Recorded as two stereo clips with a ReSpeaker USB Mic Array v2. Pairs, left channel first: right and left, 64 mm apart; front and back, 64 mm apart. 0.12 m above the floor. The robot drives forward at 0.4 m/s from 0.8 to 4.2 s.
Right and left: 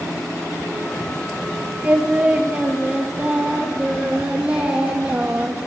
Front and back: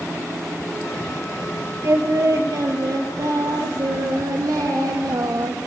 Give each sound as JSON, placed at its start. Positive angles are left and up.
{"t": 1.8, "sound": "singing", "azimuth_deg": 150, "distance_m": 1.2}